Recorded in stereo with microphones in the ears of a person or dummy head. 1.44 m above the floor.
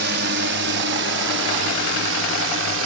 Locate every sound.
0.0 s a drone: 60° right (ahead or behind); by 2.9 s 70° right (ahead or behind)